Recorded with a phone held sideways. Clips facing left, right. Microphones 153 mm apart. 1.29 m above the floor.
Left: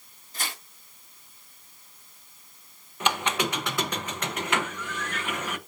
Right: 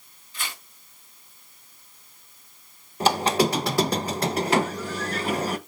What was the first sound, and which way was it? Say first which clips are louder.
Tearing paper: left 1 dB; 40° left (ahead or behind).